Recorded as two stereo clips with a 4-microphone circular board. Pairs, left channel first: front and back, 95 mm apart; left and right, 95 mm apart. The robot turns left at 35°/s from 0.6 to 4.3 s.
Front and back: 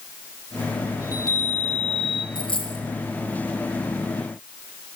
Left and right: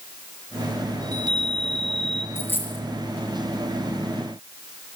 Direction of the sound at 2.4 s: 25° left.